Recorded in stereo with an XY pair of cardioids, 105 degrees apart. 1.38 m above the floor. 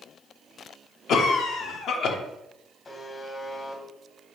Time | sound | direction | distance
1.1 | a cough | 65° left | 0.8 m
2.9 | a buzzer | 35° left | 1.2 m